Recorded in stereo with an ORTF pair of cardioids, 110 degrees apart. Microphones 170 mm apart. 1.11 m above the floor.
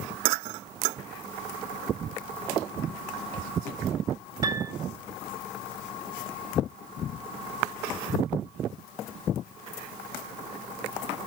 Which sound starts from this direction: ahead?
A piano, at 4.4 s.